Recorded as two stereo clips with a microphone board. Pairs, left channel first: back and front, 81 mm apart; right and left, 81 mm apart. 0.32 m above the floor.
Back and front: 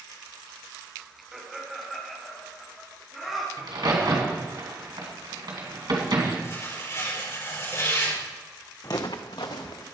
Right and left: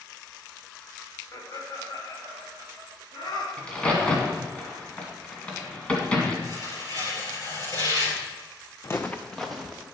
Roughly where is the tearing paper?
Behind right.